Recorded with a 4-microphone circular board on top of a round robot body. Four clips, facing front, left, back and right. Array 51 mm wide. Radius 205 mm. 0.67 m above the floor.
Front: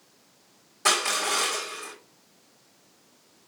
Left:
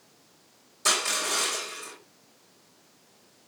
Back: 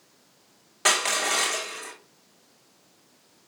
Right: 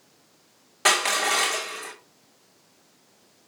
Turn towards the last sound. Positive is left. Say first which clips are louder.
# right 6 dB, back 1 dB
turn(degrees=-125)